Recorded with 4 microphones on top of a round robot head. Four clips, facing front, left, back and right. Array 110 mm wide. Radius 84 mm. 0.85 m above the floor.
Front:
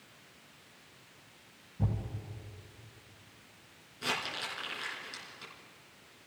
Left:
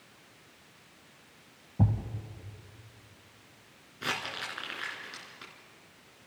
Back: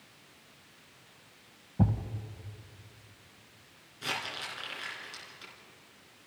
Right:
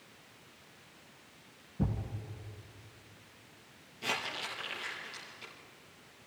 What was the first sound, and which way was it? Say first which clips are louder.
A thud: left 5 dB, back 7 dB; 145° left.